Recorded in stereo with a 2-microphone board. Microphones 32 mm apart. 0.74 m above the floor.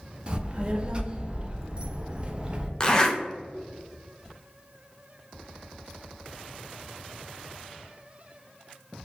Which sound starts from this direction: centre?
A zipper, at 2.8 s.